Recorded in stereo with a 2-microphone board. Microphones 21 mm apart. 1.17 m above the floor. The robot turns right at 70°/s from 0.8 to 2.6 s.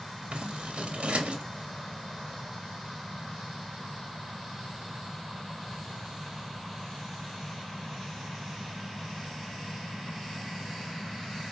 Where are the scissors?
65° right (ahead or behind), 1.6 m; by 1.4 s 75° right (ahead or behind), 1.6 m.